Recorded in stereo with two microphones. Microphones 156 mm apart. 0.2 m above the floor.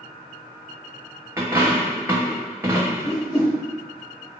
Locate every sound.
1.4 s a dropped coin: 20° right (ahead or behind), 0.8 m
3.0 s a whoosh: 15° right (ahead or behind), 1.7 m